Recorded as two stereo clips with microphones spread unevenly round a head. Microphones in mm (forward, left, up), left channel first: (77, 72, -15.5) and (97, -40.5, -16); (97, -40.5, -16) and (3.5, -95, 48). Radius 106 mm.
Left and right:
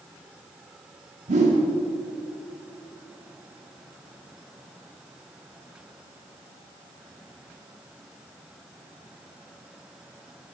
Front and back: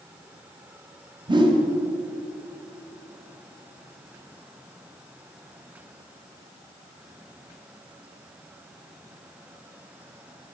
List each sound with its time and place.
1.3 s a whoosh: 100° right, 1.7 m